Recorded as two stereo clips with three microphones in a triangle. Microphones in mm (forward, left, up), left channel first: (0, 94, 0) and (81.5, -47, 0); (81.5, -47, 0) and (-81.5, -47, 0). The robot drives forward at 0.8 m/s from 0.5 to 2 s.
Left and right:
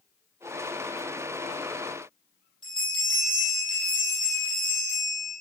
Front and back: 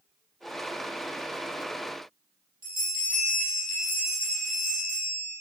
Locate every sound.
2.6 s a bell: 155° right, 7 m